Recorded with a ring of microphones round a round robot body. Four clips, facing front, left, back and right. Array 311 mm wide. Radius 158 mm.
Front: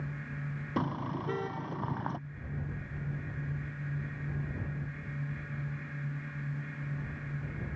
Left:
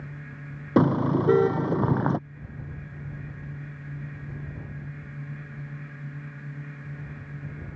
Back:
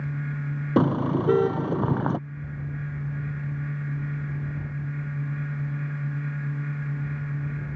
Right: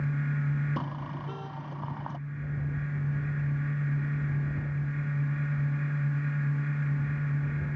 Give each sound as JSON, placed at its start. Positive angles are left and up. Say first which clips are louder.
{"t": 0.8, "sound": "a car horn", "louder": "left 15 dB, back 12 dB", "azimuth_deg": 125}